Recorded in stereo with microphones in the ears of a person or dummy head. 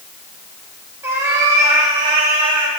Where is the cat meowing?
15° right (ahead or behind), 1.8 m; by 2.7 s 40° right (ahead or behind), 2.5 m.